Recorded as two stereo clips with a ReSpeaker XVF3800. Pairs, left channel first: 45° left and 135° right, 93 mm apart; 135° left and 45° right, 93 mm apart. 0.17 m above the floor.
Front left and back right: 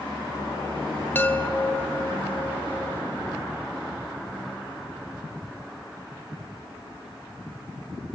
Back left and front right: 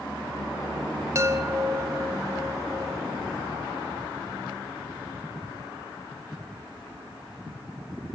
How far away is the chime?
About 1.4 m.